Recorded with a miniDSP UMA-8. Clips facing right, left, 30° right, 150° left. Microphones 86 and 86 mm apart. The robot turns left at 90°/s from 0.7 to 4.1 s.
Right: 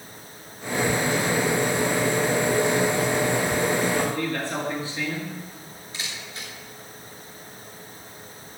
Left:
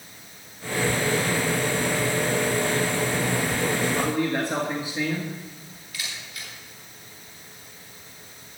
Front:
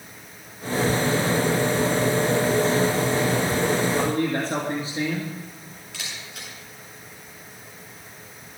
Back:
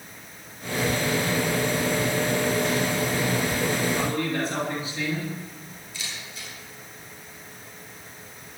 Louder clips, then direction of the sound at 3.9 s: Left 1 dB, front 3 dB; 35° left.